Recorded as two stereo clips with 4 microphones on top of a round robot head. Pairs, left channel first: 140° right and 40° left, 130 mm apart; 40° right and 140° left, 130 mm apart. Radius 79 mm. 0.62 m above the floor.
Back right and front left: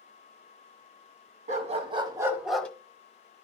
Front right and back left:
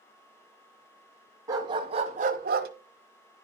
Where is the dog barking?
75° left, 1.5 m; by 2.7 s 140° left, 1.0 m.